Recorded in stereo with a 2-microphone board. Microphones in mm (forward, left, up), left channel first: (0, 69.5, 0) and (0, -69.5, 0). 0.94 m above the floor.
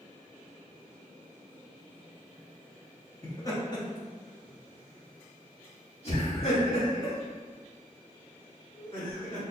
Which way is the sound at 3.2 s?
20° left (ahead or behind).